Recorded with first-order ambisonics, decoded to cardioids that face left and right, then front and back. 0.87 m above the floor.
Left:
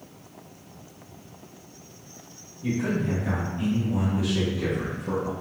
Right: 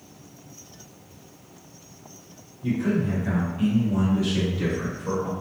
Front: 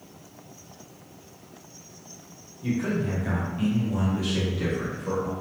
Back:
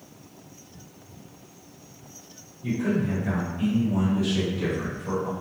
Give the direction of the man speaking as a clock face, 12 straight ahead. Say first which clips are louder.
Right 2 dB, back 1 dB; 11 o'clock.